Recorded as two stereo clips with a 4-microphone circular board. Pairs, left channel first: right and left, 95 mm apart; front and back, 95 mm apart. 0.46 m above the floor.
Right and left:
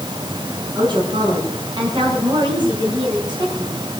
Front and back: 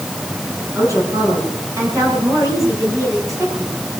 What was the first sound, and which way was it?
A woman speaking, 125° left.